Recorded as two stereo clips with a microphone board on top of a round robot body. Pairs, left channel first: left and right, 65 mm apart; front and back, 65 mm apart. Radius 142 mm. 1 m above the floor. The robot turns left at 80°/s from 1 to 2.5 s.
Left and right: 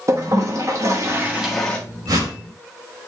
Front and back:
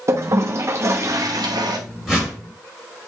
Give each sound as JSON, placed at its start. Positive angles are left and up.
{"t": 0.1, "sound": "a toilet flushing", "azimuth_deg": -135, "distance_m": 1.2}
{"t": 2.1, "sound": "a whoosh", "azimuth_deg": -100, "distance_m": 4.5}